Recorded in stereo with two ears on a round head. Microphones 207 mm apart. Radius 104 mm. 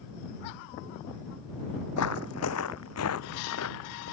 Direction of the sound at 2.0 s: 70° left (ahead or behind).